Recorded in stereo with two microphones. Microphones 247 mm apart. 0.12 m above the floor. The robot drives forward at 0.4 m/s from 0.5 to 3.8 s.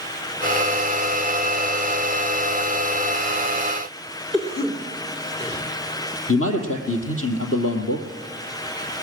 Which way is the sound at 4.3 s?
25° left (ahead or behind).